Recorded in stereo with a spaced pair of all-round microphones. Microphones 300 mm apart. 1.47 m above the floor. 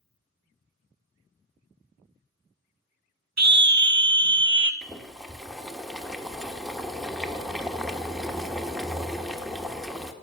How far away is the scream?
About 0.7 m.